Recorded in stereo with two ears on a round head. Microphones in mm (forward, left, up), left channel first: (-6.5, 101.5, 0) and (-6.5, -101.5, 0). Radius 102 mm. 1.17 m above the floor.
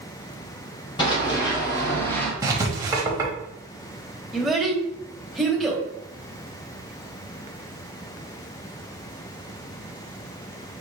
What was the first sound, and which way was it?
Running footsteps, 25° left (ahead or behind).